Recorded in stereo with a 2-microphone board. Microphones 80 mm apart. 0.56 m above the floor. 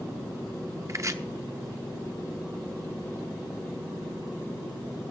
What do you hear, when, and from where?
0.9 s chopping: 40° right (ahead or behind), 0.9 m